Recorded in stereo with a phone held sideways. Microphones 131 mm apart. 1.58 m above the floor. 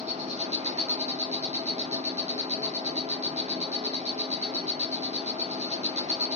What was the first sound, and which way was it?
An insect, 55° right (ahead or behind).